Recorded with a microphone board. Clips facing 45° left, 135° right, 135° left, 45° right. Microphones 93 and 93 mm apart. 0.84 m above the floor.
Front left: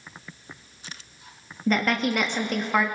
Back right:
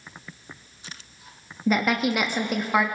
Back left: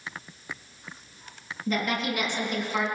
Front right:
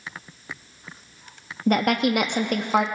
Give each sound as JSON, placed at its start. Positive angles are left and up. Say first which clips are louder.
{"t": 1.7, "sound": "a woman speaking", "louder": "back right 1 dB, front right 8 dB", "azimuth_deg": -55, "distance_m": 1.0}